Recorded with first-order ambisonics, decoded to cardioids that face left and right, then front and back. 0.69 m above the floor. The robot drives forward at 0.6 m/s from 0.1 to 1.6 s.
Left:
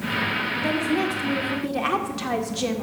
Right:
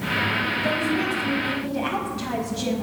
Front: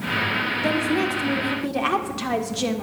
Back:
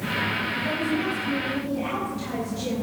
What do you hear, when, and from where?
0.6 s a woman speaking: 25° left, 2 m; by 2.8 s 35° left, 1.7 m